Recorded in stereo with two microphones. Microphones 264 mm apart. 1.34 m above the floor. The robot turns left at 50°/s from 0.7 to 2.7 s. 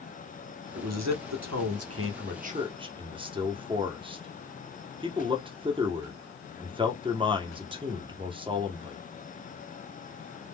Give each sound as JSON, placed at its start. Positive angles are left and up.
{"t": 0.8, "sound": "a man speaking", "side_deg": -65, "distance_m": 0.9}